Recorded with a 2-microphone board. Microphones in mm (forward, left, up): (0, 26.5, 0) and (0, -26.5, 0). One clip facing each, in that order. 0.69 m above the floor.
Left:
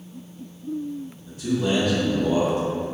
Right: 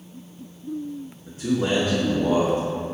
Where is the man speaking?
30° right (ahead or behind), 1.3 m; by 2.9 s 35° right (ahead or behind), 1.5 m.